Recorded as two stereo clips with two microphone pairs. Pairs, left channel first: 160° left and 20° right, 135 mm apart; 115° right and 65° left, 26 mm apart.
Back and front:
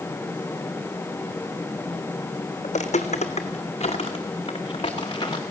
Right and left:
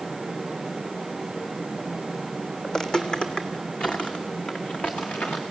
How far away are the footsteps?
About 1.6 m.